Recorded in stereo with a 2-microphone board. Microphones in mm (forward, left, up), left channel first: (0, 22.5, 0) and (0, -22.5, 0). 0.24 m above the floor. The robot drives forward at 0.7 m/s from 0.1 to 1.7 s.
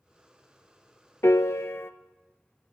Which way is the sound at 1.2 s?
80° left.